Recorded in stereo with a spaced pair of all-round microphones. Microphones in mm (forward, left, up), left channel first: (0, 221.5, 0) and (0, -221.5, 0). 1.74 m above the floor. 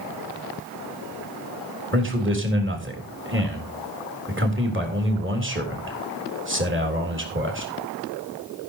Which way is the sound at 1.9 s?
25° right (ahead or behind).